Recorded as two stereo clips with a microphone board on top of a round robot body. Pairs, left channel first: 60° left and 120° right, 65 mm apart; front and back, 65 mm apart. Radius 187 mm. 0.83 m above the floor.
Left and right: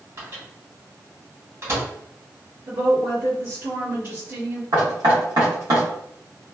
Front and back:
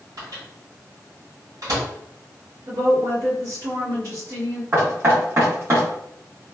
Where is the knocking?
135° right, 1.4 m.